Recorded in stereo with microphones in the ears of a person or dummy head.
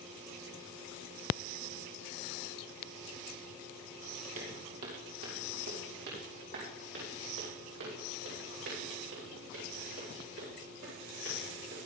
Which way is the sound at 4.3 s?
40° right (ahead or behind).